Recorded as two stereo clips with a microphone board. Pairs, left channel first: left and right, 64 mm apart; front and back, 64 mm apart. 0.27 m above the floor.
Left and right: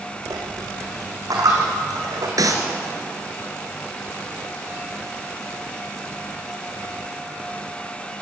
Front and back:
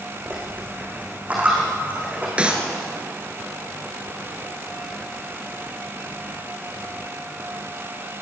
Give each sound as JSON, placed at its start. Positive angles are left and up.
{"t": 0.3, "sound": "a dropped coin", "azimuth_deg": -110, "distance_m": 6.0}
{"t": 2.4, "sound": "a clap", "azimuth_deg": -105, "distance_m": 3.0}